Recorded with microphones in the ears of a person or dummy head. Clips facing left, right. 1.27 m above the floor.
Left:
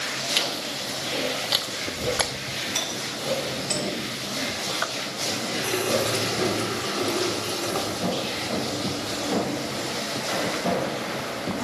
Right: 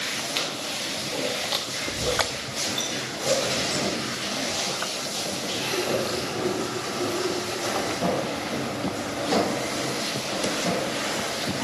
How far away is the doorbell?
About 6 m.